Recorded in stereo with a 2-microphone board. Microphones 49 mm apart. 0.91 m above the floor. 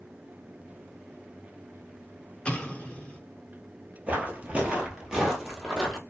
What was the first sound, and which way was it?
An explosion, 25° left (ahead or behind).